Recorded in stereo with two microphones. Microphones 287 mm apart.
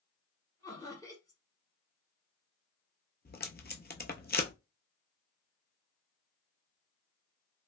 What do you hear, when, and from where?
0.6 s laughter: 15° left (ahead or behind), 1.1 m
3.2 s tape being pulled: 35° left (ahead or behind), 0.6 m